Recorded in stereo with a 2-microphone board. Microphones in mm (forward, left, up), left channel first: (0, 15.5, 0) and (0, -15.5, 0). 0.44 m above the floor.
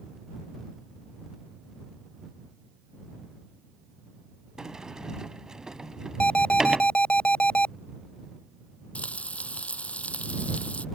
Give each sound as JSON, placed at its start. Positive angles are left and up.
{"t": 4.6, "sound": "a sliding door", "side_deg": -20}
{"t": 6.2, "sound": "an alarm", "side_deg": 45}
{"t": 8.9, "sound": "frying", "side_deg": 45}